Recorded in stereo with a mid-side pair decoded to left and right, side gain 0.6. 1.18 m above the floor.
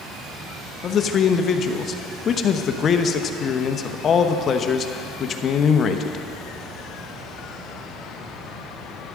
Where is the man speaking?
40° left, 0.9 m.